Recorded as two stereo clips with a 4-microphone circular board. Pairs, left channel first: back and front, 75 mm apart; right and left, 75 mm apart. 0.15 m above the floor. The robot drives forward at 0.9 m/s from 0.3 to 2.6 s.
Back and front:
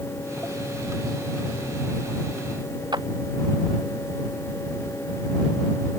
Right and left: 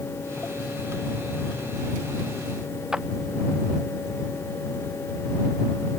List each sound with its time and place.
2.9 s a clap: 10° left